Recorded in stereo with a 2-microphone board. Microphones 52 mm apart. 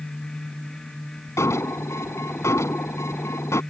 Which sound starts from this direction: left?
An alarm, at 1.4 s.